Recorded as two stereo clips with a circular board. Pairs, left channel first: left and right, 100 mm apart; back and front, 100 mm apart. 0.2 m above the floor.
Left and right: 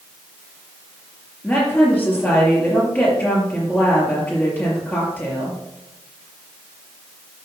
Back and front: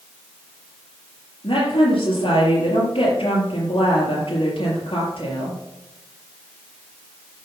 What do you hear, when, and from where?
1.4 s a woman speaking: 160° left, 5 m